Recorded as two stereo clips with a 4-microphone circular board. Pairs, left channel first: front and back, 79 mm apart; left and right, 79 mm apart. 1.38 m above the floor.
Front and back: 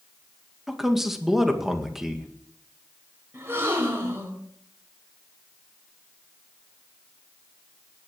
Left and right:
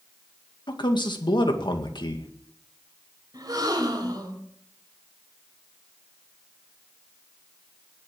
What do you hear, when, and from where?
0.7 s a man speaking: 95° left, 2.0 m
3.3 s a gasp: 125° right, 3.5 m